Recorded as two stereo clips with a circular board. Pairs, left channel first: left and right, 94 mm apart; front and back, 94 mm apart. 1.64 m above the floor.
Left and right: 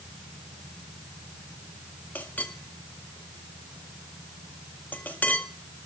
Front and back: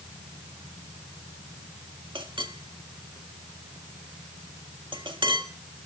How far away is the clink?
About 1.6 m.